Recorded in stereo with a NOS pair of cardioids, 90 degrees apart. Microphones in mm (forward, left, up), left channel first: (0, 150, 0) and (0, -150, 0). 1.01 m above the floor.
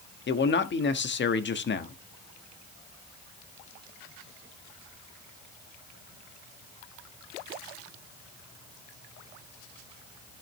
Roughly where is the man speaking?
Ahead left.